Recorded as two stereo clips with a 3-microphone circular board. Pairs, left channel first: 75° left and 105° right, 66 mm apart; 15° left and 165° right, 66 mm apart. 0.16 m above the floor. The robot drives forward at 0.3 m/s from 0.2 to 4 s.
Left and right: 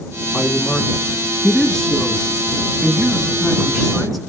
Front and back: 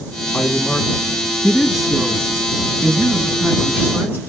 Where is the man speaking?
45° left, 1.0 m; by 4.2 s 165° left, 1.3 m.